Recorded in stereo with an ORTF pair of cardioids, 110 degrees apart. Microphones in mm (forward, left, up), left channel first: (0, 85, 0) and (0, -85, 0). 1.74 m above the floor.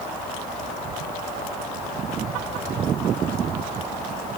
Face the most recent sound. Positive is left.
No sound to turn to.